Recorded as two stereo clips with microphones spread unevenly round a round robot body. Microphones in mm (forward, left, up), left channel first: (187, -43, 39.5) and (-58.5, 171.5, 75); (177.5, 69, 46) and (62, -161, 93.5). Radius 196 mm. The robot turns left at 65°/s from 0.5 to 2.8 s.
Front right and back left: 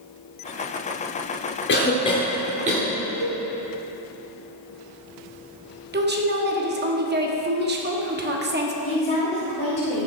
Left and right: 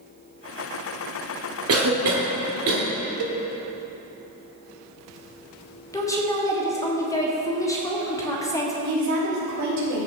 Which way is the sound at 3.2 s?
110° right.